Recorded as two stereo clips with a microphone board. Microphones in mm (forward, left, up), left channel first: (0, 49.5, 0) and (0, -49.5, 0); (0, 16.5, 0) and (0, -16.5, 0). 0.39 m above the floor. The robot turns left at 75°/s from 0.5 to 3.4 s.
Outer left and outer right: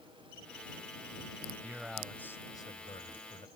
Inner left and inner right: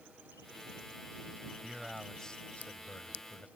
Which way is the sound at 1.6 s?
155° right.